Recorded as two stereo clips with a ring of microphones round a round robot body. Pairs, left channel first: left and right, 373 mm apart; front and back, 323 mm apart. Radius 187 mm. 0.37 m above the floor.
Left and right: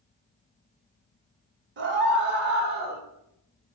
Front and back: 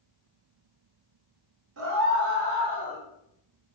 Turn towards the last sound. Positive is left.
turn(degrees=-130)